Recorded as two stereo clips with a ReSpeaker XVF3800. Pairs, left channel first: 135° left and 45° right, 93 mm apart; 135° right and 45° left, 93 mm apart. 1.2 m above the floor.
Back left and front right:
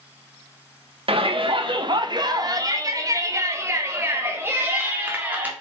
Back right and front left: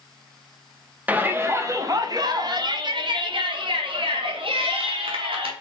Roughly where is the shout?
Ahead right.